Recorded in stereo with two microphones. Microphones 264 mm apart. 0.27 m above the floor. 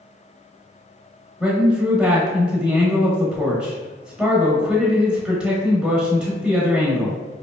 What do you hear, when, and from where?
1.4 s a man speaking: 5° right (ahead or behind), 0.9 m